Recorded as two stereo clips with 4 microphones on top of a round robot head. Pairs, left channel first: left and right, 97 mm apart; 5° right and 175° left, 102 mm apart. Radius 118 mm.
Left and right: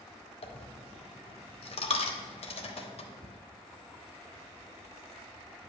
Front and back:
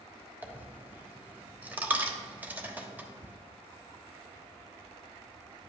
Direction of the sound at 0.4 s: 100° left.